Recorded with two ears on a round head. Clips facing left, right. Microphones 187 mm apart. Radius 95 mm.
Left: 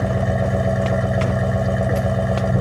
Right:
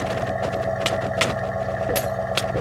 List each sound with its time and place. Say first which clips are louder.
0.0 s an engine running: left 3 dB; 40° left (ahead or behind)